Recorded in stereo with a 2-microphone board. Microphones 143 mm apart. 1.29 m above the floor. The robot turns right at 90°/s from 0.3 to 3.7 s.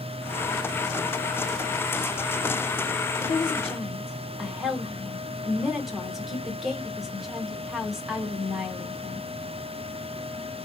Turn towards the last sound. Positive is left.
turn(degrees=180)